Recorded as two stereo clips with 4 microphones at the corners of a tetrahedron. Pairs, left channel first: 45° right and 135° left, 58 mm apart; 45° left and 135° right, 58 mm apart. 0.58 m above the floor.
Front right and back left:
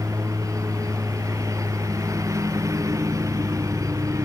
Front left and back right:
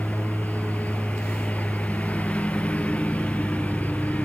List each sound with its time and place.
0.0 s a lawn mower: 110° left